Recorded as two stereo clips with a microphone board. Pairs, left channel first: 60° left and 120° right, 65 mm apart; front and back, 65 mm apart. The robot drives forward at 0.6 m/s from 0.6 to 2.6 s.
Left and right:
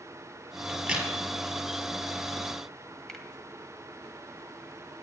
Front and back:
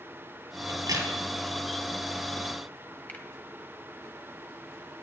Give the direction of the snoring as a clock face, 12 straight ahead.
I don't hear snoring.